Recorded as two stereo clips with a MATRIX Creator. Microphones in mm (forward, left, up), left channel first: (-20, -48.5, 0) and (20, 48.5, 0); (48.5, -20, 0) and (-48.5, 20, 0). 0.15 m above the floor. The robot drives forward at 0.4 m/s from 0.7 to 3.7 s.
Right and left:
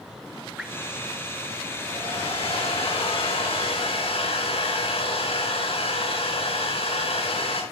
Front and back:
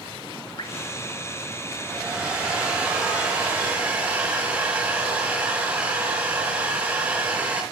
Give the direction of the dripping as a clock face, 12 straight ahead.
12 o'clock.